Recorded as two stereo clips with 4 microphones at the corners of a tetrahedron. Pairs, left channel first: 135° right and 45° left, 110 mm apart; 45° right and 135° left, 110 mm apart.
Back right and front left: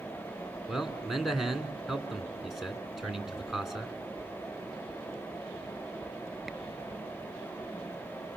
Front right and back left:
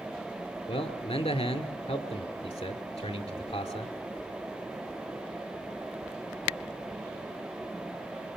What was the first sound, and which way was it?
A man speaking, 45° right.